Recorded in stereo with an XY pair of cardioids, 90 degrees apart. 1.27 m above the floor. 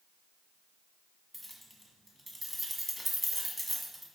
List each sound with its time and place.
1.3 s keys jangling: 15° right, 1.0 m